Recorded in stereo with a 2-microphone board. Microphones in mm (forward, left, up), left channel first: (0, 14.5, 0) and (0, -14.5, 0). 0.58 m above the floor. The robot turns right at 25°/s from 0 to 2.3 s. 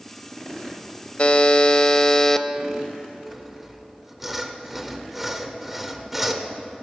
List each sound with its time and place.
1.2 s a buzzer: 45° left (ahead or behind), 0.7 m; by 2.5 s 15° left (ahead or behind), 0.7 m
3.3 s sawing: 5° right (ahead or behind), 1.0 m